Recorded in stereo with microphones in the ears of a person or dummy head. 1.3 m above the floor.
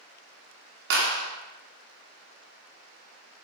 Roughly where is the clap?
Right.